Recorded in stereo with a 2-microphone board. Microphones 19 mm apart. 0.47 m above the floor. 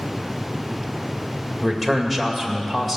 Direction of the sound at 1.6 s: Centre (ahead or behind).